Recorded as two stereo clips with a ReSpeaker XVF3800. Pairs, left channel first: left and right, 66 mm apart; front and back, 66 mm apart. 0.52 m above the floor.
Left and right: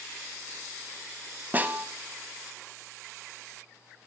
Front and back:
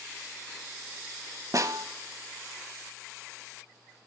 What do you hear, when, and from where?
1.5 s a snare drum: 150° right, 0.6 m